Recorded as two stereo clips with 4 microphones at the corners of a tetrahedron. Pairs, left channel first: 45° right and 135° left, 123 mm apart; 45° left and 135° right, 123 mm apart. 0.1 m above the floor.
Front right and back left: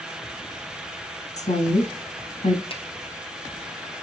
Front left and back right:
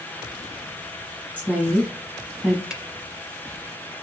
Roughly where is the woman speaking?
Ahead right.